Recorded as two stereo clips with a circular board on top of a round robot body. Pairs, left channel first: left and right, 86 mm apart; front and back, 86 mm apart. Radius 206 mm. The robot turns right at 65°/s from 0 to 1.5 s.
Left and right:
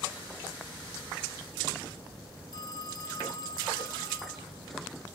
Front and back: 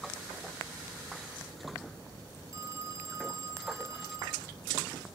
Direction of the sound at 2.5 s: 125° left.